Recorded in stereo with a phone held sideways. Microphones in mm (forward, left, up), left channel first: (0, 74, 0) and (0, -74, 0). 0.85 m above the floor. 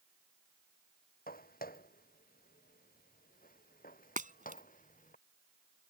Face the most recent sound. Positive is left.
turn(degrees=-60)  # may be behind; listen again after turning